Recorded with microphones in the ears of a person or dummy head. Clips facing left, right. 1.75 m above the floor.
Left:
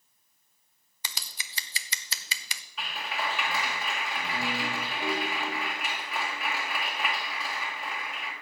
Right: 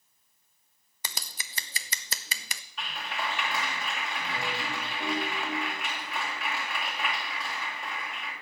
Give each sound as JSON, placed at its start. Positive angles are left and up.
{"t": 1.0, "sound": "scissors", "side_deg": -40, "distance_m": 0.5}
{"t": 2.8, "sound": "a clap", "side_deg": 0, "distance_m": 2.5}